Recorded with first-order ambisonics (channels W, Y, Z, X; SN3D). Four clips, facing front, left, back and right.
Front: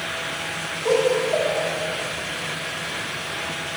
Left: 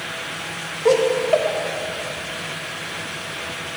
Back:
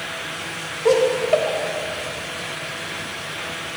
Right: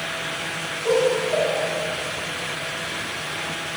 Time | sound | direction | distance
0.8 | laughter | 125° left | 1.1 m